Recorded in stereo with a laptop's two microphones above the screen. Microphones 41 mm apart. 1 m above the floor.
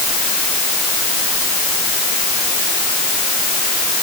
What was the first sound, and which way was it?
Only background noise.